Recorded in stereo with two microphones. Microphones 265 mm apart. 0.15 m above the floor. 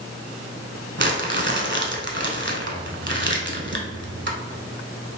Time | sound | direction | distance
1.0 | crumpling | 45° right (ahead or behind) | 0.8 m